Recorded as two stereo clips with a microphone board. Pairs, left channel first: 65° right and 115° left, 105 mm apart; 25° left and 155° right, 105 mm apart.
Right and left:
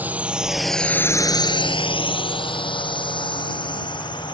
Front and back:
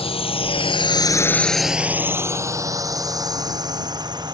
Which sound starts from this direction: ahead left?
A drone, at 0.0 s.